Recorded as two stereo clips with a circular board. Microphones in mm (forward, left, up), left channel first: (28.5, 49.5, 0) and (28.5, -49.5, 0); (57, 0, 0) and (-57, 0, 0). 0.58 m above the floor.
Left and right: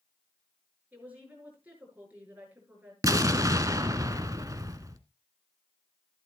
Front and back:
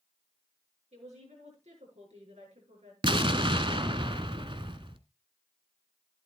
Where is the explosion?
140° right, 0.9 m.